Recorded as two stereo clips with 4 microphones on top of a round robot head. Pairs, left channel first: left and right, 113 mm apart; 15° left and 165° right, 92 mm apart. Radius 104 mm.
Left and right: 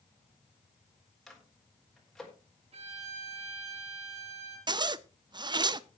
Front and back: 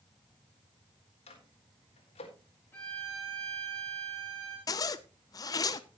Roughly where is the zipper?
Ahead right.